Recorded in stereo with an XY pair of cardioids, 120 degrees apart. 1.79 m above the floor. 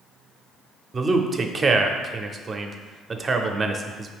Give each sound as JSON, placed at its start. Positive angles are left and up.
{"t": 0.9, "sound": "a man speaking", "azimuth_deg": -30, "distance_m": 0.5}